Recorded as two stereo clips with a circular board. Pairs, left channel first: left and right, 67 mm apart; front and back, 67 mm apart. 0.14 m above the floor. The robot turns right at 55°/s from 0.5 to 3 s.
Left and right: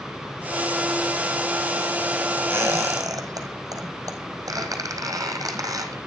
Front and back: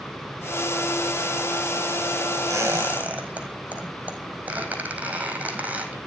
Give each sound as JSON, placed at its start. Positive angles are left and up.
{"t": 2.5, "sound": "a squeak", "azimuth_deg": -140, "distance_m": 4.5}